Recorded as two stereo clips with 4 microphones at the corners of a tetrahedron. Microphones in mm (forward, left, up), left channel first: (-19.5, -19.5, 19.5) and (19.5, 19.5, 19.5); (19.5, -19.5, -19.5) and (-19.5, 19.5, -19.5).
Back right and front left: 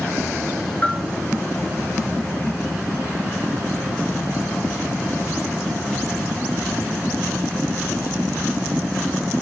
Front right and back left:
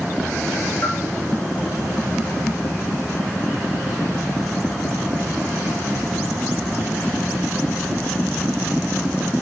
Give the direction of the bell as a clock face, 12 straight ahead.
3 o'clock.